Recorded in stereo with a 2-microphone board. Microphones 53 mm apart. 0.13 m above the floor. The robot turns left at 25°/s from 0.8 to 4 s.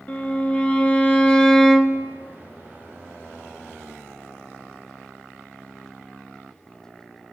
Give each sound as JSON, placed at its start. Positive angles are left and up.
{"t": 0.1, "sound": "a violin", "azimuth_deg": 35, "distance_m": 0.5}